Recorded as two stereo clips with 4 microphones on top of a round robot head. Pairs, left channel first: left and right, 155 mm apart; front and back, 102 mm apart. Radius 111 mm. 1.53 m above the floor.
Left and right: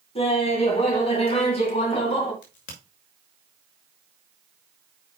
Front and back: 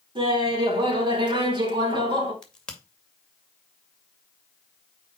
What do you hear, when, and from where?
0.1 s laughter: 140° left, 4.5 m
2.4 s a crack: 80° left, 2 m